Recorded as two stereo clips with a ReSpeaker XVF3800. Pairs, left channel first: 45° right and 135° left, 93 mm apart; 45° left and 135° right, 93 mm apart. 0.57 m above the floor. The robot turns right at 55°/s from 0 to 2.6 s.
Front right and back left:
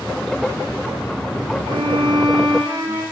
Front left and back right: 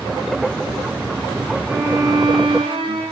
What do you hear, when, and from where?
1.7 s a violin: 150° left, 7.5 m; by 3.0 s 160° right, 7.5 m